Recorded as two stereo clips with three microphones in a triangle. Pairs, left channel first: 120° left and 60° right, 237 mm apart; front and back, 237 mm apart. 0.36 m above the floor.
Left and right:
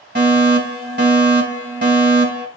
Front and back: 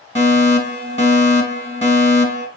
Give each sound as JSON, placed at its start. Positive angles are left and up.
{"t": 0.1, "sound": "a fire alarm", "azimuth_deg": -55, "distance_m": 3.0}